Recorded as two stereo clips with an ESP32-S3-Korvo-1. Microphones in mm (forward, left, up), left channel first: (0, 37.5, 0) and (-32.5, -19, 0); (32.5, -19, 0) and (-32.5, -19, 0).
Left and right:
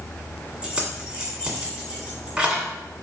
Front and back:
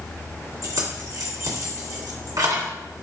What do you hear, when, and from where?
0.6 s keys jangling: 165° left, 1.4 m